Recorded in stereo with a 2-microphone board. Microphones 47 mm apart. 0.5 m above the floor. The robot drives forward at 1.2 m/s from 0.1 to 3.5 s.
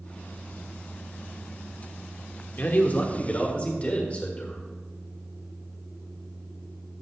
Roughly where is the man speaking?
Left.